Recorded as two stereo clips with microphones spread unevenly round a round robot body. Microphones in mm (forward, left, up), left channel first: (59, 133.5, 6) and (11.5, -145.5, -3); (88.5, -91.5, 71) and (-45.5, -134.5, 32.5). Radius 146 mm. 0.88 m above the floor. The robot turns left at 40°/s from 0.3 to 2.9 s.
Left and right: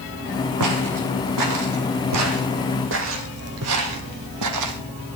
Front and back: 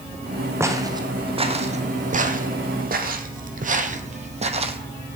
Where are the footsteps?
85° right, 2.5 m; by 4.8 s 110° right, 1.8 m.